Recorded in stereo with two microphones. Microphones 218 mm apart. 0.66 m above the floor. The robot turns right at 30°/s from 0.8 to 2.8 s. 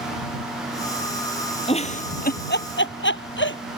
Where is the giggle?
25° left (ahead or behind); by 3.6 s 60° left (ahead or behind).